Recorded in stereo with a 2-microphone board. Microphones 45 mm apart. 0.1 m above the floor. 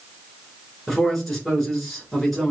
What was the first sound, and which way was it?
A man speaking, 5° left (ahead or behind).